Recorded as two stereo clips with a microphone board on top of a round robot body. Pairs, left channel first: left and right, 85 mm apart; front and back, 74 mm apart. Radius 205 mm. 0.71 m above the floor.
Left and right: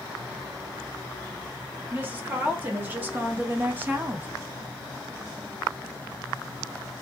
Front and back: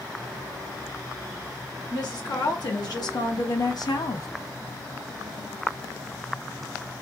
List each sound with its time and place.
1.9 s a woman speaking: 20° right, 2.0 m; by 4.3 s 25° right, 0.7 m